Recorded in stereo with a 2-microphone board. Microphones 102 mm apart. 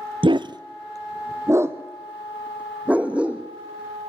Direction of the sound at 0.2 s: 55° right (ahead or behind).